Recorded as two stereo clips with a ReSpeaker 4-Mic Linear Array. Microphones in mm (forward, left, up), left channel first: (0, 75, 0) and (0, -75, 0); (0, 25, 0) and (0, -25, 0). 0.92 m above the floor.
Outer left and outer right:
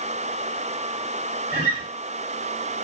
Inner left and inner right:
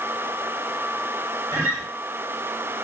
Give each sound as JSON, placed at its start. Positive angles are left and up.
{"t": 1.5, "sound": "a guitar", "side_deg": -60, "distance_m": 1.7}